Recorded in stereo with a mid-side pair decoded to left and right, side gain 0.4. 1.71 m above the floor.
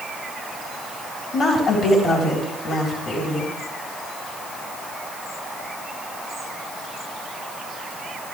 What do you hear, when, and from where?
1.3 s a woman speaking: 70° left, 4 m